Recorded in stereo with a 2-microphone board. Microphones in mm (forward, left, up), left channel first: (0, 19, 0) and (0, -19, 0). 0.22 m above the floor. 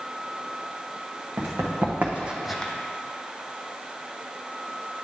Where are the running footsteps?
70° right (ahead or behind), 1.7 m; by 2.7 s 25° left (ahead or behind), 0.7 m.